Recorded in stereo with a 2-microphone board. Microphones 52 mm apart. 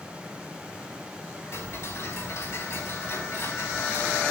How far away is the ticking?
About 4.5 m.